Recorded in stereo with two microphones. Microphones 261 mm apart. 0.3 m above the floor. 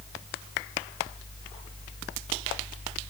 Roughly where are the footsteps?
No footsteps in this recording.